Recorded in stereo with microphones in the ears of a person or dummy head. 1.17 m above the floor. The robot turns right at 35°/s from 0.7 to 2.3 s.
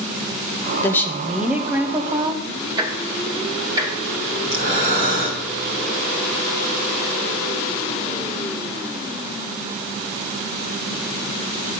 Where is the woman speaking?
155° left, 0.7 m; by 2.4 s 150° right, 0.7 m.